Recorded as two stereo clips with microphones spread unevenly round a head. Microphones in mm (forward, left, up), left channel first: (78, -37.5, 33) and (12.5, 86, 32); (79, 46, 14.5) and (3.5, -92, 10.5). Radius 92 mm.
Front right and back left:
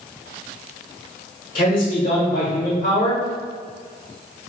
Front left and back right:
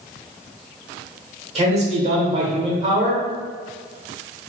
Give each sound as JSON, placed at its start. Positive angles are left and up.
{"t": 1.6, "sound": "a man speaking", "azimuth_deg": -75, "distance_m": 1.3}